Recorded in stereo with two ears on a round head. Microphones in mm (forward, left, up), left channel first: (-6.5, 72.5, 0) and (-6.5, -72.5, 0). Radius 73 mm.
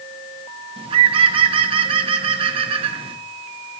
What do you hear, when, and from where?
0.8 s a bird: 35° right (ahead or behind), 1.2 m